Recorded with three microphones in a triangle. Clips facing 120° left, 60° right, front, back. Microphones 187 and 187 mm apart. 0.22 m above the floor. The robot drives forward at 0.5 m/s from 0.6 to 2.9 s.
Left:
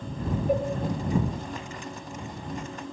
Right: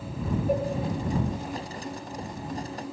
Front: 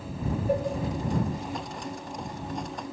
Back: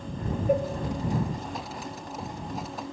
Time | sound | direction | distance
0.5 | a cowbell | 40° right | 2.5 m